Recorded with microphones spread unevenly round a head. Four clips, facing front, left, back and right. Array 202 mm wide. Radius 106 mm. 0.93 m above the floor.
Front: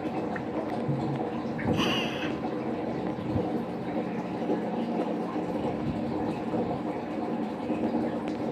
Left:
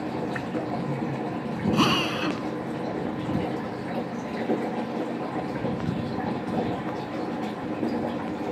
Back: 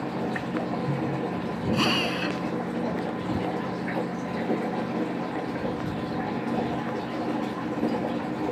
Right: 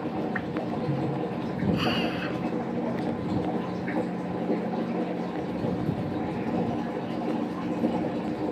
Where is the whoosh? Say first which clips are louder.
Even, back 2 dB; 110° right.